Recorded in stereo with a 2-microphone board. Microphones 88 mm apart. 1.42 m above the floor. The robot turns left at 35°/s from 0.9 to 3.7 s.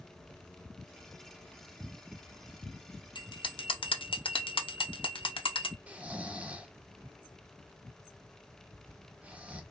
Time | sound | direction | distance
3.1 | a bell | 60° left (ahead or behind) | 0.6 m
5.9 | snoring | 15° right (ahead or behind) | 0.6 m